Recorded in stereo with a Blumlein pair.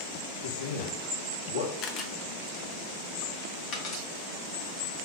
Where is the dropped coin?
35° left, 1.4 m.